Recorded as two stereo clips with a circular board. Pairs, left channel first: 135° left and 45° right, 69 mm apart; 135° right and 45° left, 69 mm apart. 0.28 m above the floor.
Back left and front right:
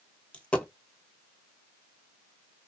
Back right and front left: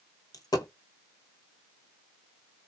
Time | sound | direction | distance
0.3 | a dropped coin | 150° right | 1.0 m